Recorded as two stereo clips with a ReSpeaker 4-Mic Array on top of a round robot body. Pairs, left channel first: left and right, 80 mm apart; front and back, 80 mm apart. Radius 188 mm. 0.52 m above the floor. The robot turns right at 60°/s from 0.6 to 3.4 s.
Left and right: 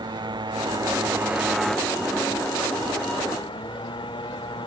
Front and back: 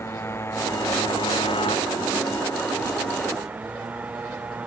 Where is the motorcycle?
60° right; by 4.7 s 105° left.